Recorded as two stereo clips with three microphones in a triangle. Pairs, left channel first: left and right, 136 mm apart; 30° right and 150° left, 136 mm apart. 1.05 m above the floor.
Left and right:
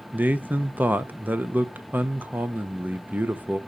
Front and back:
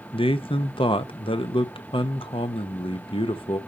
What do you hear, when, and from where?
0.1 s a man speaking: 20° right, 0.7 m